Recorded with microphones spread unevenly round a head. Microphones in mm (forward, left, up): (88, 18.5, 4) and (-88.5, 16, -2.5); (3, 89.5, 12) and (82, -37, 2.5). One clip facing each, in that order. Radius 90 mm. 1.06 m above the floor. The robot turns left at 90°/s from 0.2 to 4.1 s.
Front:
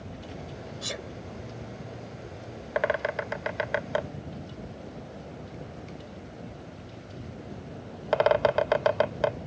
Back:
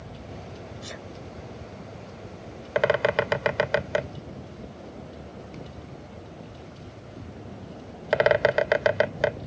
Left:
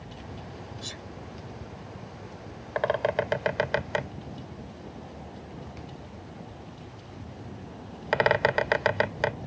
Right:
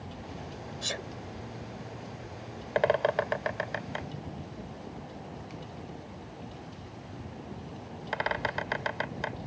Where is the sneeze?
30° right; by 1.1 s 55° right.